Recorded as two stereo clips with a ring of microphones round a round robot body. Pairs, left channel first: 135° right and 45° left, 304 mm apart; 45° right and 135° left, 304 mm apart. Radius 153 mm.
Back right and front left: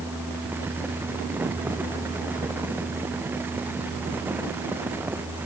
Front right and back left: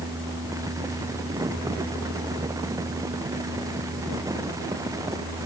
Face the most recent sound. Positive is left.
No sound to turn to.